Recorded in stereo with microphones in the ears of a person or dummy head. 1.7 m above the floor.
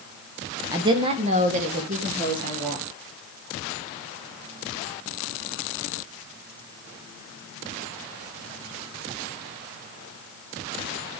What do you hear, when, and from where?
0.7 s a woman speaking: 20° right (ahead or behind), 1.1 m; by 2.9 s 50° right (ahead or behind), 4 m